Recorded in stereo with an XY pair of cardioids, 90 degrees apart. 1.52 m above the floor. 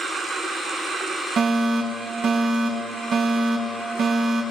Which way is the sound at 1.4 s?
65° right.